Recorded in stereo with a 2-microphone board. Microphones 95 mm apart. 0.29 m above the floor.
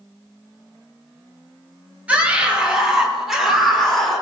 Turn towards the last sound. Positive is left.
turn(degrees=5)  # may be behind; listen again after turning